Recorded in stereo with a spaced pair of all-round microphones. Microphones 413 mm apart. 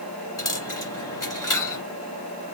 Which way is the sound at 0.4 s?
45° left (ahead or behind).